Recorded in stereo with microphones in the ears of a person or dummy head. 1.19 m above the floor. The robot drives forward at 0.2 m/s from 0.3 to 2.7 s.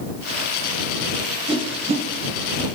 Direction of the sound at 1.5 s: 25° right (ahead or behind).